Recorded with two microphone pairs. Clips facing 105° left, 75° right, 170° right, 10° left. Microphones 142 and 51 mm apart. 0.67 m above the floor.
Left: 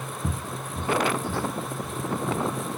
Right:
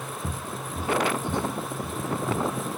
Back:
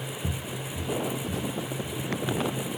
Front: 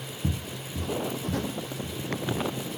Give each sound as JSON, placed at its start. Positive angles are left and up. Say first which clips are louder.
{"t": 0.2, "sound": "footsteps", "louder": "left 3 dB, front 4 dB", "azimuth_deg": 30}